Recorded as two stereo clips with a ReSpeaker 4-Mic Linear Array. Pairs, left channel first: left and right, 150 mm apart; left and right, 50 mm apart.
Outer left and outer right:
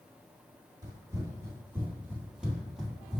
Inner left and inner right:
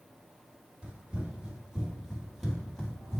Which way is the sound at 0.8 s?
25° right (ahead or behind).